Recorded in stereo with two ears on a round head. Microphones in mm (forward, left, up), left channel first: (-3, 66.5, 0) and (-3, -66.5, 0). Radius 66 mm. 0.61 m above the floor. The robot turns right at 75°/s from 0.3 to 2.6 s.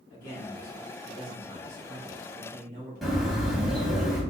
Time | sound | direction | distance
0.1 | a man speaking | 70° left | 2.0 m
3.0 | a bird | centre (ahead or behind) | 1.5 m